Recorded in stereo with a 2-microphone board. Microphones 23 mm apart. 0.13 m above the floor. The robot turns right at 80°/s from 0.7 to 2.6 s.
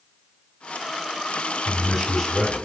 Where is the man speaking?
45° right, 4 m; by 2.7 s 30° left, 4 m.